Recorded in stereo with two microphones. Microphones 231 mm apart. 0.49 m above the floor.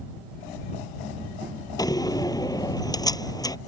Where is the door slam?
15° left (ahead or behind).